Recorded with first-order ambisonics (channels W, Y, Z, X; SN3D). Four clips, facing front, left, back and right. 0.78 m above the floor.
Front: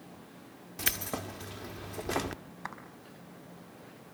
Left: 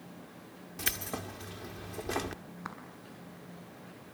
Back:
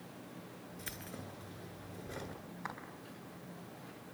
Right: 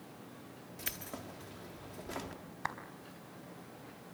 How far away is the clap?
About 4 m.